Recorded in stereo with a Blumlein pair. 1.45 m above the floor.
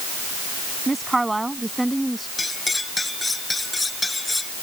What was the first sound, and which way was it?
A woman speaking, 10° right.